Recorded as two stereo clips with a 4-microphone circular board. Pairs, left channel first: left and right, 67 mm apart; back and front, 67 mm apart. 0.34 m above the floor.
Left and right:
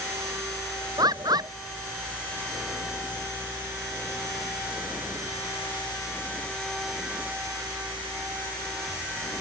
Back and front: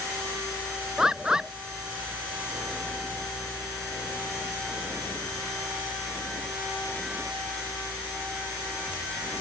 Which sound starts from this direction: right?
A bird, at 1.0 s.